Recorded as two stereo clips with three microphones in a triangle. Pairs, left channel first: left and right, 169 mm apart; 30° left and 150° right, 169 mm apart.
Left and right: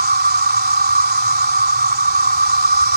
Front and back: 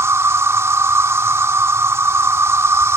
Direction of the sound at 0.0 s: 75° right.